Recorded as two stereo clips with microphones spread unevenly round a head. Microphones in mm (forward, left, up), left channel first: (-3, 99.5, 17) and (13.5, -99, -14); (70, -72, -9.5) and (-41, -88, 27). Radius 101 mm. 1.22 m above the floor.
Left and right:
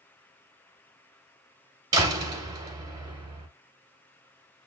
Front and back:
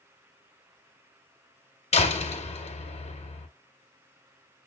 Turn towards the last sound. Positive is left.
turn(degrees=-15)